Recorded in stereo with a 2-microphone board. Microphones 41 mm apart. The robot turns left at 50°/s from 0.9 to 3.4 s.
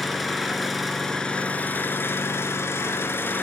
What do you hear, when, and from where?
0.0 s an engine running: straight behind, 2.5 m; by 3.4 s 55° left, 2.5 m